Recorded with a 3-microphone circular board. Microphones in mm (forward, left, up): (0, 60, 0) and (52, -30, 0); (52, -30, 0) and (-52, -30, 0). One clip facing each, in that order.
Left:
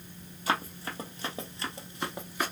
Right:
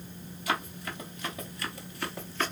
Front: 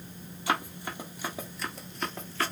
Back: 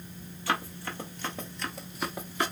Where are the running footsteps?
65° left, 1.3 m; by 2.5 s 175° left, 0.7 m.